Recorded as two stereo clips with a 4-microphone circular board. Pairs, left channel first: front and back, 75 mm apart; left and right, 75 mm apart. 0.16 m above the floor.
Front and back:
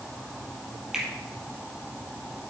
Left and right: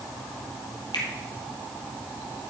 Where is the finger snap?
95° left, 3.5 m.